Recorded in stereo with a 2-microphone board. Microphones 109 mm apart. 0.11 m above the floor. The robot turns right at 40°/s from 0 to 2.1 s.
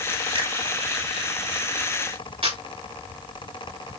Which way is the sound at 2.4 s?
60° right (ahead or behind).